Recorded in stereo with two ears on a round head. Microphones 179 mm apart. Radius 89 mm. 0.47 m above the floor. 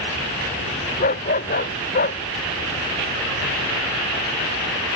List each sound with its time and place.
1.0 s a dog barking: 40° left (ahead or behind); by 2.2 s 45° left (ahead or behind)